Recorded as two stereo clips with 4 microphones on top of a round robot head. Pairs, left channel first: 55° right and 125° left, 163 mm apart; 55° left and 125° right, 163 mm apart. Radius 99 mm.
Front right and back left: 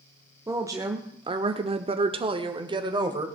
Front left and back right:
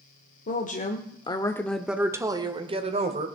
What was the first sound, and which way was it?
A woman speaking, 55° left.